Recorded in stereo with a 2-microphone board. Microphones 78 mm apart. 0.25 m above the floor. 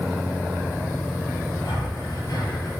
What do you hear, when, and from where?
1.6 s breathing: 50° left (ahead or behind), 3 m